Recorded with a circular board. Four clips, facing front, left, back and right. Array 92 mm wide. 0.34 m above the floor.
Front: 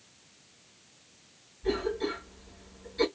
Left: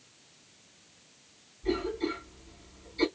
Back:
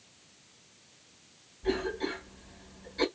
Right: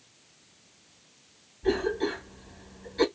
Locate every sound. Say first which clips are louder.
1.6 s a cough: right 4 dB, front 1 dB; 105° right, 5 m